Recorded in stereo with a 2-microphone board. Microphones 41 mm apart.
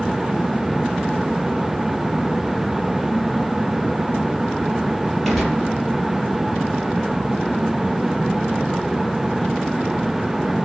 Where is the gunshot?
5° left (ahead or behind), 4.5 m.